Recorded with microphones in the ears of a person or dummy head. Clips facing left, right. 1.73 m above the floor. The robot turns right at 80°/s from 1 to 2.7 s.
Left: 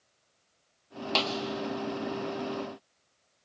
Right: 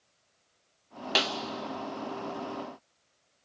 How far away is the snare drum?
About 0.7 m.